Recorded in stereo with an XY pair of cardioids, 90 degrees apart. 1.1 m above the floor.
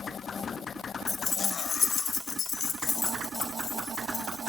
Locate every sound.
1.1 s keys jangling: 40° left, 0.9 m; by 4.5 s 75° left, 3 m